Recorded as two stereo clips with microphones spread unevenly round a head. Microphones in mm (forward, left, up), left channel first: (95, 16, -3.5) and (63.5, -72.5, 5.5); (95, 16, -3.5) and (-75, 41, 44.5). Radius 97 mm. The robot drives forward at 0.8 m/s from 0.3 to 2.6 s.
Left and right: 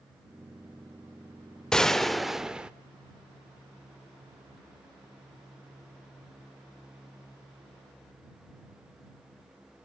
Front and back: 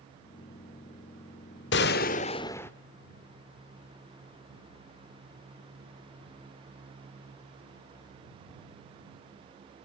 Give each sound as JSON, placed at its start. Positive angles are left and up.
{"t": 1.7, "sound": "a gunshot", "azimuth_deg": -15, "distance_m": 1.0}